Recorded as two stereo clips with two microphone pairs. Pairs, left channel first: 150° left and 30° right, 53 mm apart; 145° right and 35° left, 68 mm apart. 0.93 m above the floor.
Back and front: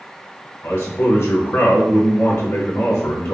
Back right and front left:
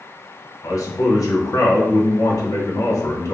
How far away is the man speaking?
About 0.8 m.